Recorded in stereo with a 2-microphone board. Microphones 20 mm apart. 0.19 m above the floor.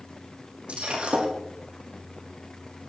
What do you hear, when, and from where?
0.7 s breaking glass: 65° right (ahead or behind), 5 m